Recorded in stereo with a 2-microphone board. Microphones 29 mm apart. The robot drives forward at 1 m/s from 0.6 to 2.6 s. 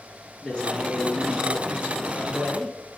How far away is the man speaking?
About 4 m.